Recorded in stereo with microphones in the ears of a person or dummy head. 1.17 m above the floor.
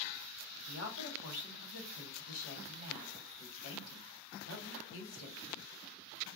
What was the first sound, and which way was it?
A woman speaking, 85° left.